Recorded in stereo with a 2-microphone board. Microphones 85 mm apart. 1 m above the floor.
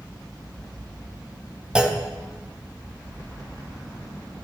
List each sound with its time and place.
1.8 s a clunk: 10° right (ahead or behind), 0.7 m